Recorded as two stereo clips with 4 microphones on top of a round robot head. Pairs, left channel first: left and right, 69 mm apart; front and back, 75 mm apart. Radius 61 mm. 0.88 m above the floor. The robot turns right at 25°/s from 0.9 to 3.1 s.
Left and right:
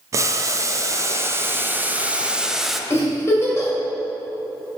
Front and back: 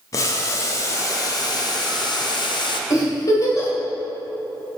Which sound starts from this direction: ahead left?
A giggle, at 2.9 s.